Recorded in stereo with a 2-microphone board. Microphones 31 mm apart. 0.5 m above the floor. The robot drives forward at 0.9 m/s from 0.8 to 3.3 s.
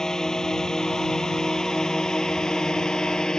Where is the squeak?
No squeak in this recording.